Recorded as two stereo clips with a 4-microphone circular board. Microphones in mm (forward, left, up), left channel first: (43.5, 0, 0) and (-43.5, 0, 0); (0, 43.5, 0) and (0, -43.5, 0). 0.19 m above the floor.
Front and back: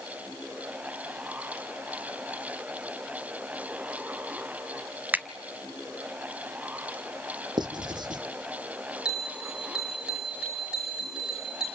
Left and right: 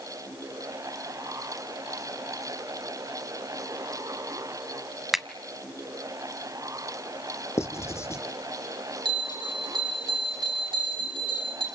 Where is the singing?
No singing in this recording.